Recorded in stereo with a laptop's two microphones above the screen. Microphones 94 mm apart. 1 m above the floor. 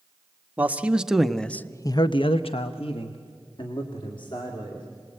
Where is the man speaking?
15° right (ahead or behind), 1.4 m; by 4.9 s 55° left (ahead or behind), 2.5 m.